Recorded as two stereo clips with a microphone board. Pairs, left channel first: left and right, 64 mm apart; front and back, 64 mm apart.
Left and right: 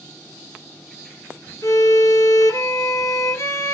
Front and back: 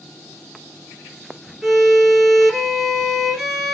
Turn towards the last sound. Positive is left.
turn(degrees=85)